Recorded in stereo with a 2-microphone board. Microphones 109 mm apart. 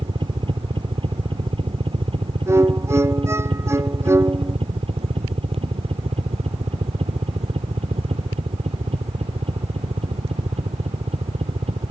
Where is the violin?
25° right (ahead or behind).